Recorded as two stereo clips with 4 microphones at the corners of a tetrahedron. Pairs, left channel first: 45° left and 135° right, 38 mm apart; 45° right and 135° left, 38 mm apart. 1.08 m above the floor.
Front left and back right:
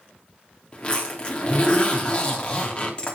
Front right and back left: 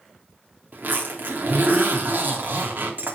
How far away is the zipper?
About 3 m.